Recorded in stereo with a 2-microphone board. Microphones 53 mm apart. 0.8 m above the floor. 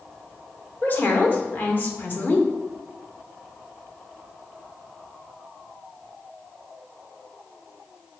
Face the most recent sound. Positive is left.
turn(degrees=40)  # may be behind; listen again after turning